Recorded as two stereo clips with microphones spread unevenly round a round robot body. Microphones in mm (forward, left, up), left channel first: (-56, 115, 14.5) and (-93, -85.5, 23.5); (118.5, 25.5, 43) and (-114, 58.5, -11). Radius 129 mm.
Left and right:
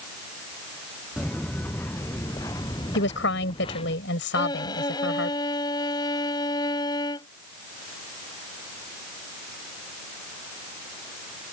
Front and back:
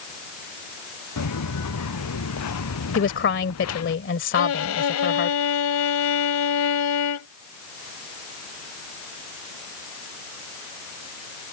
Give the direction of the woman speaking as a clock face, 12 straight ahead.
11 o'clock.